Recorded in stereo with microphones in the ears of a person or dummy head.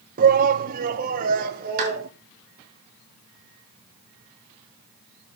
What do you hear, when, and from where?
0.2 s a shout: 50° right (ahead or behind), 0.9 m; by 2.1 s 55° right (ahead or behind), 2 m
1.8 s a clap: 50° right (ahead or behind), 7 m